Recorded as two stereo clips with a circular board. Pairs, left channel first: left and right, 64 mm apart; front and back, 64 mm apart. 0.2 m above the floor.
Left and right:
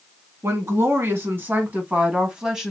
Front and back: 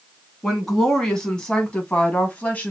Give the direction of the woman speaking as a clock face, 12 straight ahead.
3 o'clock.